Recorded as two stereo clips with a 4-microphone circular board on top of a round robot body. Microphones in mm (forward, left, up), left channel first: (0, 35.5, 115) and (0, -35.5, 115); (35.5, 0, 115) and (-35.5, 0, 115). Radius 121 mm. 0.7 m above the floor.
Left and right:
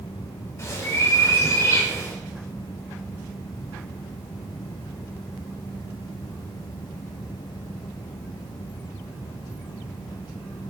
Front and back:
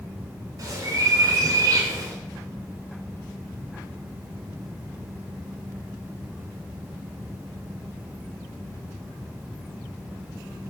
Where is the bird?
140° left, 2 m.